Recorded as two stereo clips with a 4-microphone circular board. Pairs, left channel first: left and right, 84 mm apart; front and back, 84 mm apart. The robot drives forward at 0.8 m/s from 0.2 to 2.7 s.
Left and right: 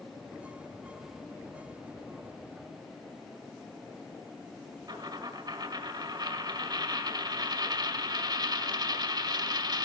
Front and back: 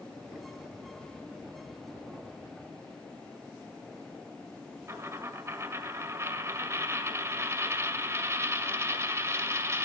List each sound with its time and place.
4.9 s a dropped coin: 125° right, 1.6 m